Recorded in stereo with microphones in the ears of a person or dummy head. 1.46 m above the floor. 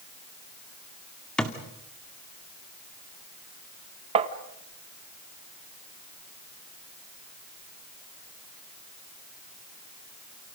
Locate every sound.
1.4 s a thud: 10° left (ahead or behind), 1.7 m
4.2 s tapping: 35° right (ahead or behind), 1.5 m